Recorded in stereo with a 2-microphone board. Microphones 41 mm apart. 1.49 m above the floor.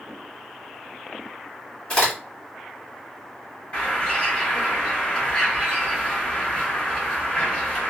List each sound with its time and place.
1.9 s a crack: 35° left (ahead or behind), 2 m
3.7 s a bird: 35° left (ahead or behind), 1.7 m